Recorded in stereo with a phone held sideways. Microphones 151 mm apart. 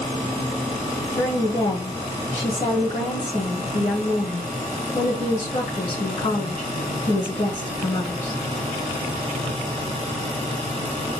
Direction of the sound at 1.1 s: 50° left (ahead or behind).